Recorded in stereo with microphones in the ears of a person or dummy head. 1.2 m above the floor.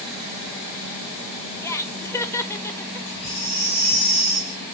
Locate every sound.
1.6 s laughter: 10° left (ahead or behind), 1.0 m
3.1 s a baby crying: 50° left (ahead or behind), 4.5 m